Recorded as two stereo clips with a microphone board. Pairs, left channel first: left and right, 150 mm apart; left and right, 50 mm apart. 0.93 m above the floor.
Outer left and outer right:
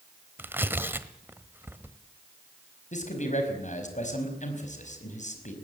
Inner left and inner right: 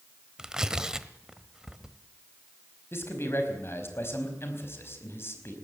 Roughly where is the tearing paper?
Centre.